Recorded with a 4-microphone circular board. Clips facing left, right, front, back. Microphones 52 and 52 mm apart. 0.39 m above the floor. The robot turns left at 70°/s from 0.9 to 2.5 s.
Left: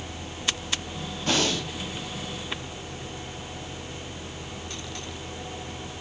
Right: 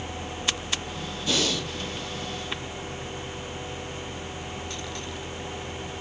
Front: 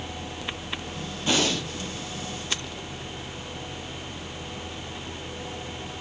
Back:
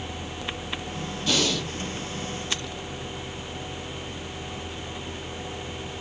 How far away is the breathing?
About 2.5 m.